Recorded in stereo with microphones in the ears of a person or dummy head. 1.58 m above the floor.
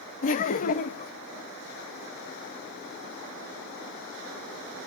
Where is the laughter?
35° left (ahead or behind), 0.7 m.